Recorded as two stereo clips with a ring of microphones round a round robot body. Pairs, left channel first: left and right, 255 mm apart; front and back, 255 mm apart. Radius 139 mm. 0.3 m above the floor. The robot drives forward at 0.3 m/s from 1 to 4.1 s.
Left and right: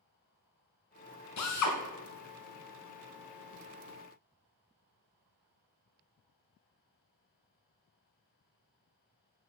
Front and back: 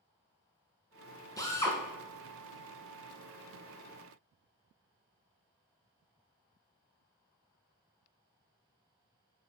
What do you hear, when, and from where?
1.4 s a drill: 80° left, 2 m